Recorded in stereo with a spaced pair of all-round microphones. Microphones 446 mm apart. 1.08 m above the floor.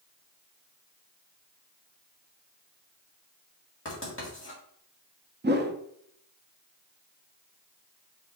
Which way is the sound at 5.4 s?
25° right (ahead or behind).